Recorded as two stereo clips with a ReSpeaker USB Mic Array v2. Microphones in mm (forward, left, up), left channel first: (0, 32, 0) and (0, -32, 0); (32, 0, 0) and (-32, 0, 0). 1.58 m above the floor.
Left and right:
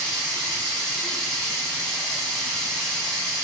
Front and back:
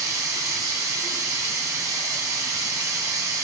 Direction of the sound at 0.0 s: 170° left.